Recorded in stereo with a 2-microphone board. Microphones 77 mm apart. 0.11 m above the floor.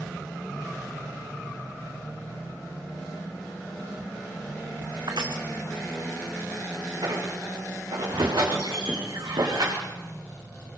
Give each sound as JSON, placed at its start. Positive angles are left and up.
{"t": 5.1, "sound": "crushing", "side_deg": -70, "distance_m": 2.5}
{"t": 7.0, "sound": "a squeak", "side_deg": -80, "distance_m": 6.0}